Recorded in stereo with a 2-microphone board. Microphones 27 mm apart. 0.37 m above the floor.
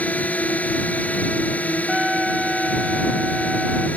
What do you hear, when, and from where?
0.0 s a drone: 80° left
1.9 s a trumpet: 20° right (ahead or behind)